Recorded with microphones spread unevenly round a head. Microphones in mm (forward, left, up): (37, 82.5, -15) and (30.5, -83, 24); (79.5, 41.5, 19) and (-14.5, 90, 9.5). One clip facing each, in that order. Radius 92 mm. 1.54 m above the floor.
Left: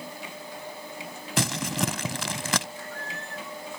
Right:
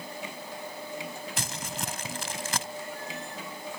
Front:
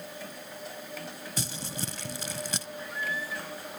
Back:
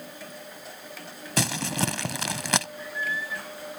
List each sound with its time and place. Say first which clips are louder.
1.4 s crumpling: left 9 dB, back 12 dB; 130° left
2.8 s a squeak: right 1 dB, back 2 dB; 170° right